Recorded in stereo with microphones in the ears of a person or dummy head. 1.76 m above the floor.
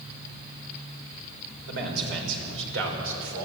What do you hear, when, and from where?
1.7 s a man speaking: 70° right (ahead or behind), 6.5 m; by 3.5 s 80° right, 6 m